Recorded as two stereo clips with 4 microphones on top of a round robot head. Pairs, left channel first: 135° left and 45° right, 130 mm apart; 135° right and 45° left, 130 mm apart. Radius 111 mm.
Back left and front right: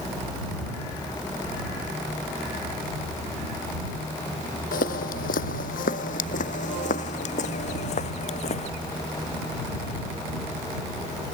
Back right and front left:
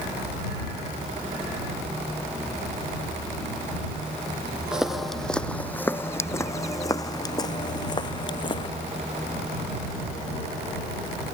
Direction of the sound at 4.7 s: 130° left.